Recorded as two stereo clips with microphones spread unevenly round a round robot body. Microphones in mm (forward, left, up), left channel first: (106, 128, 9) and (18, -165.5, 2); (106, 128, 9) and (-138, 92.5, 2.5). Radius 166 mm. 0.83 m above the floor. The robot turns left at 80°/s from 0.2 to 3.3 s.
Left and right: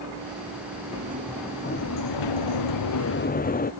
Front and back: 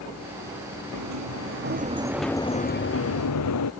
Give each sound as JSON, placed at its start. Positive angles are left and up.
{"t": 0.9, "sound": "a sliding door", "azimuth_deg": -160}